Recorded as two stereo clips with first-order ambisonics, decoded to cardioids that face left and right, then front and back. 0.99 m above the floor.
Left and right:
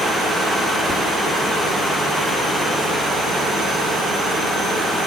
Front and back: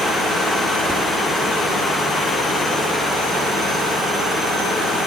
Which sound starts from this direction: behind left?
Whispering, at 0.9 s.